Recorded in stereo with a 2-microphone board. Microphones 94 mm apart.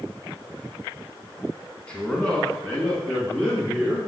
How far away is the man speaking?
About 1.7 m.